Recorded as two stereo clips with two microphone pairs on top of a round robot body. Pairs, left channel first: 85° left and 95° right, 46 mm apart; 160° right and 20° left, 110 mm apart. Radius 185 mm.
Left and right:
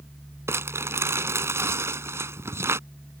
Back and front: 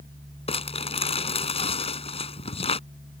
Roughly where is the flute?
No flute in this recording.